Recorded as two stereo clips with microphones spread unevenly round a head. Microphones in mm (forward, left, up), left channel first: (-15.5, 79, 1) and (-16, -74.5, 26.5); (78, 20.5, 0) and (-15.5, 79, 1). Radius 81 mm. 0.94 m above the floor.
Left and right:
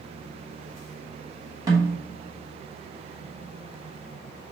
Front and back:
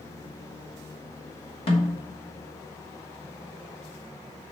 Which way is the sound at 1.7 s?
20° right.